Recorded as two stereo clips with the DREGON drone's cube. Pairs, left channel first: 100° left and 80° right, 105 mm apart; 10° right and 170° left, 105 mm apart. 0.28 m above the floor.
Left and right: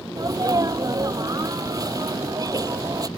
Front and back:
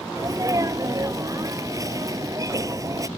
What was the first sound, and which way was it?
A sneeze, 135° right.